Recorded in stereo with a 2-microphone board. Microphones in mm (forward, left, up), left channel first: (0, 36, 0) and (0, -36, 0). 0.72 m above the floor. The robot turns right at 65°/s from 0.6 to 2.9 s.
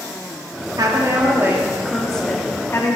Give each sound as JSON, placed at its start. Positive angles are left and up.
{"t": 0.8, "sound": "a woman speaking", "azimuth_deg": -85, "distance_m": 1.1}